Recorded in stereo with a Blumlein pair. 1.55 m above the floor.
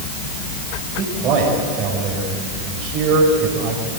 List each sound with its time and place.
1.0 s a man speaking: 30° right, 7 m